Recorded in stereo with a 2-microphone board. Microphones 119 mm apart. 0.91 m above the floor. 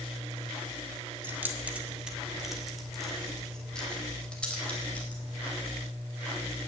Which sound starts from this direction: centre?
Keys jangling, at 1.2 s.